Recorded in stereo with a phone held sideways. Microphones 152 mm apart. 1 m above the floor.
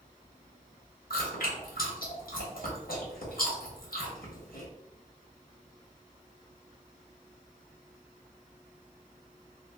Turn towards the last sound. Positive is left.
turn(degrees=75)  # may be behind; listen again after turning